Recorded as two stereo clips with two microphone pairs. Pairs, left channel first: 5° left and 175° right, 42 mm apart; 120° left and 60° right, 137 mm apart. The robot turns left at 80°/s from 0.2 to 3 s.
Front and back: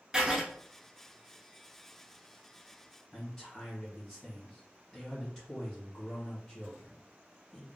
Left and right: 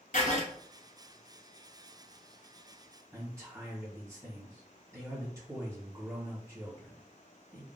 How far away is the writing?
About 0.9 m.